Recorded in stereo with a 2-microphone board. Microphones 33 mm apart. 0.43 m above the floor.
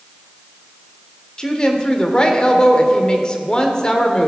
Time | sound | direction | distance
1.4 | a woman speaking | 25° left (ahead or behind) | 1.0 m